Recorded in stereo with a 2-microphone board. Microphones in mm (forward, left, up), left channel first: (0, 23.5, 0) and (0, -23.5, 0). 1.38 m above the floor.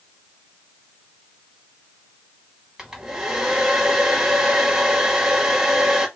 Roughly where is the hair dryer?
Centre.